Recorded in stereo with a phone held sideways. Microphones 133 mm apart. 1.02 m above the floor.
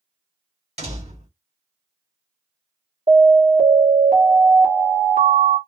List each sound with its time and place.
0.8 s a door slam: 55° right (ahead or behind), 1.4 m
3.1 s an alarm: 85° right, 1.4 m